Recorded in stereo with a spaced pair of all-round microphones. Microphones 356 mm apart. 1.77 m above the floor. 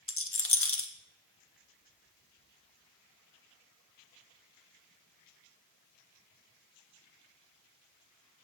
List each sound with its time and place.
0.1 s a rattle: 35° left (ahead or behind), 0.8 m